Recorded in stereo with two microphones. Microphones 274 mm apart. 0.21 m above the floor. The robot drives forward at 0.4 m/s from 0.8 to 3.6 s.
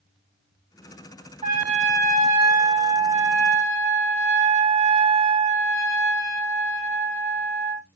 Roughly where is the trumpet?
Right.